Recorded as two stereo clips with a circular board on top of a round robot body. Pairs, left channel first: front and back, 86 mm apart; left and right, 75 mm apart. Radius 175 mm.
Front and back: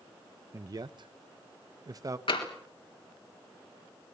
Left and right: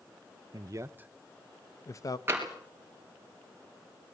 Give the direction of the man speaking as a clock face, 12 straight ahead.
4 o'clock.